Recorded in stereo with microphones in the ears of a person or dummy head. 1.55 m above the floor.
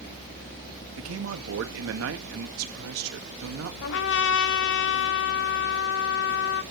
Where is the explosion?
I don't hear an explosion.